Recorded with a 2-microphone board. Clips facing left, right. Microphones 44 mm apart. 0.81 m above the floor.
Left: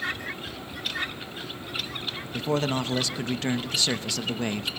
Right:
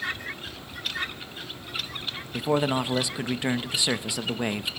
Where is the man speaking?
15° right (ahead or behind), 0.7 m.